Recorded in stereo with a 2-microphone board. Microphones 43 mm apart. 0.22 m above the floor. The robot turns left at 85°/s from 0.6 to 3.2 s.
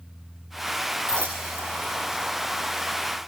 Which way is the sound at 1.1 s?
65° right (ahead or behind).